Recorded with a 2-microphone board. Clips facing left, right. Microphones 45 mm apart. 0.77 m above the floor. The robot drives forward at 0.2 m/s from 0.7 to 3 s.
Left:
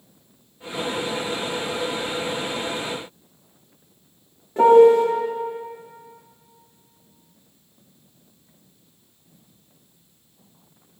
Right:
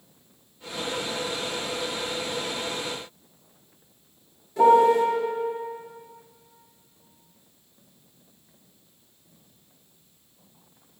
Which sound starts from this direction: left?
A piano, at 4.6 s.